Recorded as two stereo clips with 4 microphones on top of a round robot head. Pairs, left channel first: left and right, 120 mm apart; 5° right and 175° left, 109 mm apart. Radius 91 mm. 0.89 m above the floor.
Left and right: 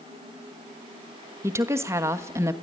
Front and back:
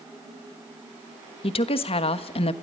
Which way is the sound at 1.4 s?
25° right.